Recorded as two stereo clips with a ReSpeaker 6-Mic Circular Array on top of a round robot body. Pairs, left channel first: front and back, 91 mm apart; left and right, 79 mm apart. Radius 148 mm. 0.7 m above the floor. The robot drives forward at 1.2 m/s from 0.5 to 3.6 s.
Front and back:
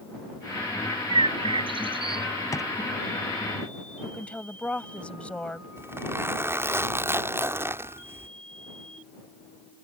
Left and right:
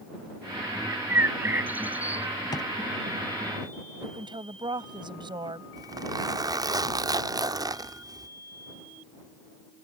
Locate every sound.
0.9 s a bird: 150° right; by 2.3 s 160° right
2.5 s a drawer: 55° left; by 2.7 s 60° left
4.0 s a woman speaking: 75° right
5.8 s a zipper: 120° right